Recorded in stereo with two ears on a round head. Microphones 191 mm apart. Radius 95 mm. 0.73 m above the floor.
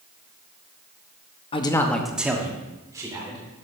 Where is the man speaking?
25° left (ahead or behind), 0.7 m; by 3.4 s 20° right (ahead or behind), 2.5 m.